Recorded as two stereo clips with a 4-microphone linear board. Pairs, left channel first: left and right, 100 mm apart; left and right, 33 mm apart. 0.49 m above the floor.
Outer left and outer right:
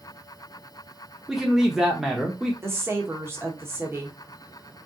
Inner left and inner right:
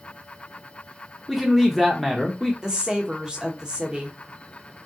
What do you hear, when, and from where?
1.3 s a man speaking: 5° right (ahead or behind), 0.8 m
2.6 s a woman speaking: 25° right (ahead or behind), 0.8 m